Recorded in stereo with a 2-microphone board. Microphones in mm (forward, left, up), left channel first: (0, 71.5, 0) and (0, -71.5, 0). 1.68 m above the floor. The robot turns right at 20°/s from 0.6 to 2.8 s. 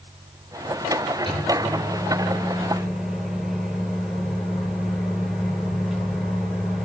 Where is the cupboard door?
No cupboard door in this recording.